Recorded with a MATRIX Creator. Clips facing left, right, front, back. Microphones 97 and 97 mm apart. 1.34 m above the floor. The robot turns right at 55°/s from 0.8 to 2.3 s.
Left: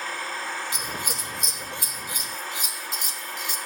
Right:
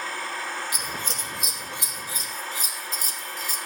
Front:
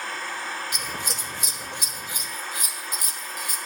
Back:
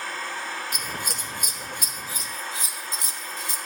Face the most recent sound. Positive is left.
turn(degrees=-125)